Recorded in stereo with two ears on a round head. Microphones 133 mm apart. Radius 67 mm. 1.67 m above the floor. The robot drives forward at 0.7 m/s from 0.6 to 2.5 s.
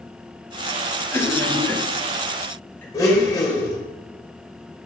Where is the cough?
20° left (ahead or behind), 1.9 m; by 2.8 s 15° left (ahead or behind), 3 m.